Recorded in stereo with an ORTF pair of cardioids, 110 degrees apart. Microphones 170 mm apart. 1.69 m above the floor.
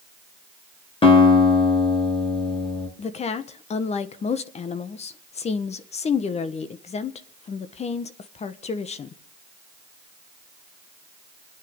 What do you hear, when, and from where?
1.0 s a guitar: 35° left, 4.5 m
3.0 s a woman speaking: 40° left, 1.4 m